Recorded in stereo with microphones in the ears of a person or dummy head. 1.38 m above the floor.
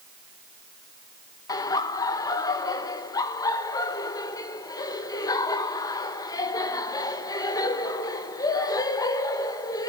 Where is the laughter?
20° left (ahead or behind), 1.5 m.